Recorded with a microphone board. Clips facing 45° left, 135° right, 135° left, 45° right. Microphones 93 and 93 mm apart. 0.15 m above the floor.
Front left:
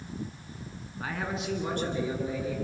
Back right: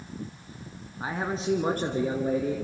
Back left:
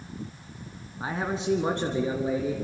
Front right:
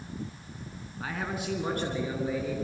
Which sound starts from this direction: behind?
A man speaking, at 1.0 s.